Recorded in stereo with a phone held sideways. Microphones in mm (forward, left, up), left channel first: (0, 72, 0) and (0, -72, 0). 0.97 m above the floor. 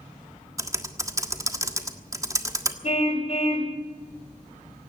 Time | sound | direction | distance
0.6 | typing on a keyboard | 25° right (ahead or behind) | 1.5 m
2.8 | a car horn | 50° left (ahead or behind) | 2 m